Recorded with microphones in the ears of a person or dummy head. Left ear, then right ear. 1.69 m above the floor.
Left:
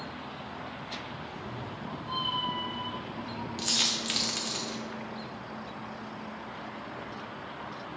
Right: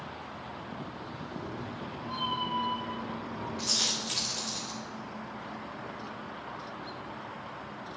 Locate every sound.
1.2 s a cat meowing: 10° left (ahead or behind), 1.5 m; by 3.5 s 50° left (ahead or behind), 2.5 m
3.6 s a dropped coin: 30° left (ahead or behind), 1.3 m